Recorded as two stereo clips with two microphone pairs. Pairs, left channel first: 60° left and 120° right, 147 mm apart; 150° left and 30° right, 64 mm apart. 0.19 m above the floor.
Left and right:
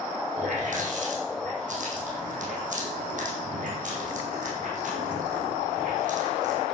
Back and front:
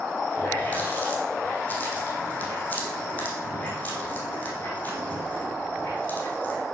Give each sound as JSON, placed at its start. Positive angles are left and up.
{"t": 0.4, "sound": "a running tap", "azimuth_deg": -145, "distance_m": 6.0}